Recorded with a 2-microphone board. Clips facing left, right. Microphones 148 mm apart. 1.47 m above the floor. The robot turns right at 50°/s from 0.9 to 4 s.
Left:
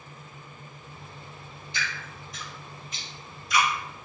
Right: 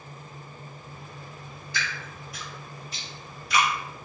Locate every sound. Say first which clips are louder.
1.7 s dripping: right 1 dB; 25° left (ahead or behind), 1.2 m; by 3.7 s 75° right (ahead or behind), 1.2 m